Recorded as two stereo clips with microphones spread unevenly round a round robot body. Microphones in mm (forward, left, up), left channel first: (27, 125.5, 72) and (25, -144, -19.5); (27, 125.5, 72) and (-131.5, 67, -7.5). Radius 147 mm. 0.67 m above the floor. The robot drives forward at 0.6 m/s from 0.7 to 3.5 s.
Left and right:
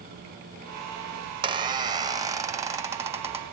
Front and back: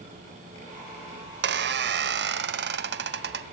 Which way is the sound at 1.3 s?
160° right.